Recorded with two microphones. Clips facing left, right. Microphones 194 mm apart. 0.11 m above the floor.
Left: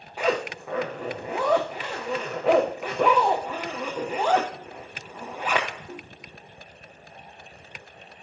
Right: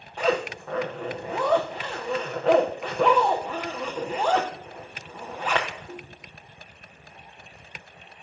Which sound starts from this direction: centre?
A zipper, at 0.2 s.